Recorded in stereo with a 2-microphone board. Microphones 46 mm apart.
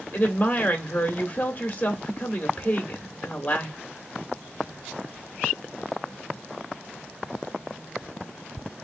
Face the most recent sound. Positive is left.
turn(degrees=35)  # may be behind; listen again after turning